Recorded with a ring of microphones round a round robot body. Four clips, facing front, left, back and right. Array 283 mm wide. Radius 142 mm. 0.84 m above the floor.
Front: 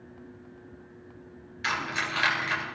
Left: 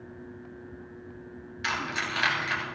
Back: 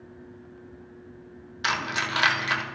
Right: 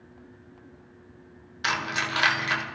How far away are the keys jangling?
About 1.9 m.